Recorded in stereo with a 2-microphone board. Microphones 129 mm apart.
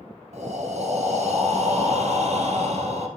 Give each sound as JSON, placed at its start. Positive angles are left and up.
{"t": 0.3, "sound": "breathing", "side_deg": -65, "distance_m": 1.0}